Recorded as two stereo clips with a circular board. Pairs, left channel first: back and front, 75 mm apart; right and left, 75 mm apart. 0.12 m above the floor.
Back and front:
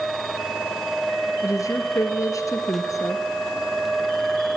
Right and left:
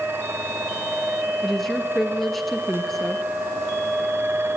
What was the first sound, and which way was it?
A woman speaking, straight behind.